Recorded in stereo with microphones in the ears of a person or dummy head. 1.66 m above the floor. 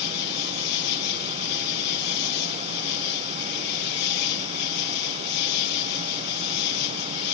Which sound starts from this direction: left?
An insect, at 0.0 s.